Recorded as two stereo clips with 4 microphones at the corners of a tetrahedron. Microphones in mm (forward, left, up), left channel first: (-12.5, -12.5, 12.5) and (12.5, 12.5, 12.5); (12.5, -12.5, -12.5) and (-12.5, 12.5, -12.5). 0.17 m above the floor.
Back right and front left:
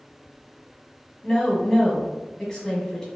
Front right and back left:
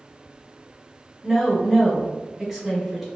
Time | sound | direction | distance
1.2 | a woman speaking | 160° right | 1.1 m